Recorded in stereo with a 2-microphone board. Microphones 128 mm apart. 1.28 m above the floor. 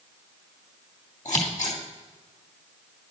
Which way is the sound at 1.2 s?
70° left (ahead or behind).